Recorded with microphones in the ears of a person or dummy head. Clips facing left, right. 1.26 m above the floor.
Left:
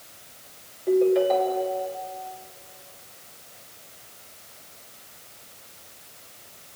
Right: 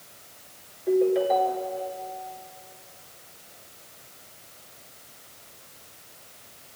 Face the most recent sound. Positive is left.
turn(degrees=-10)  # may be behind; listen again after turning